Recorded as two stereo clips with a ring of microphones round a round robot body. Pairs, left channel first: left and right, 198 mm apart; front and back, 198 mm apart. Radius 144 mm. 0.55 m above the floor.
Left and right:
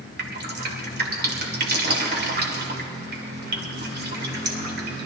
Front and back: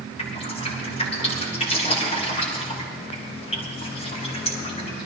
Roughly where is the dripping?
Ahead right.